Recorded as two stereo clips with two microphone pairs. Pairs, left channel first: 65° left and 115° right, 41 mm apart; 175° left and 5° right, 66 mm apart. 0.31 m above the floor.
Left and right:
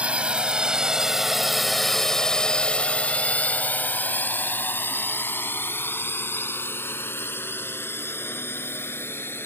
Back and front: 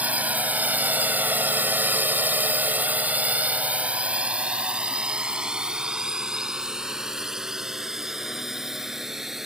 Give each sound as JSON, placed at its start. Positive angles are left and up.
{"t": 0.0, "sound": "a drone", "azimuth_deg": -65}